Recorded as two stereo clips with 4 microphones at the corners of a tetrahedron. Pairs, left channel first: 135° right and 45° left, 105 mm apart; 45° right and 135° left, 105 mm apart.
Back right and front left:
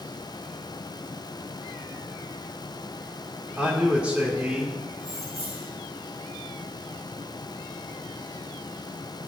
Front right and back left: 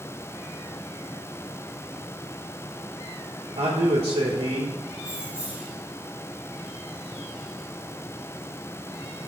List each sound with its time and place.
3.6 s a man speaking: 125° left, 2.5 m
5.0 s keys jangling: 55° left, 4 m